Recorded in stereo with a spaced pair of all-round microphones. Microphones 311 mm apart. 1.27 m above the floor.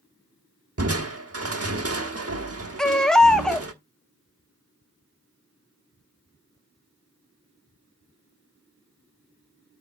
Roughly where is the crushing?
Right.